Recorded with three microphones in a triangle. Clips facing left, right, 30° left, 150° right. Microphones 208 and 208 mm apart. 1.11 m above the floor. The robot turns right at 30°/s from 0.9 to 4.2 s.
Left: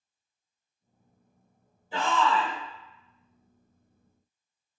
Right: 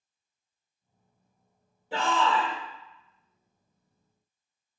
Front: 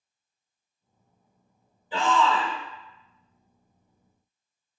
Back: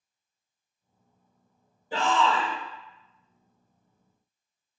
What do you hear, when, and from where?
1.9 s a shout: 105° right, 1.9 m; by 2.5 s 85° right, 1.9 m